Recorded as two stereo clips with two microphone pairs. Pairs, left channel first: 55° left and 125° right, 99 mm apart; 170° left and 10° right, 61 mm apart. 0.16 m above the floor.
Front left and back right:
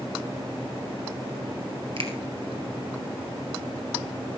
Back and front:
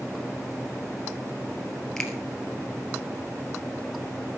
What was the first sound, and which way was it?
A finger snap, 110° right.